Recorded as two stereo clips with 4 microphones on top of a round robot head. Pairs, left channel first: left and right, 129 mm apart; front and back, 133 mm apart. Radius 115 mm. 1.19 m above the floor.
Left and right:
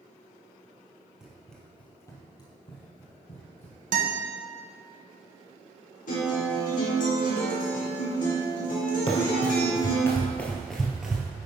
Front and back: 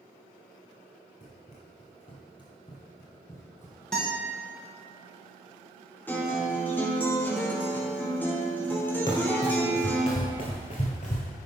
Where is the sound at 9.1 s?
55° left, 1.6 m; by 11.3 s 10° right, 1.5 m.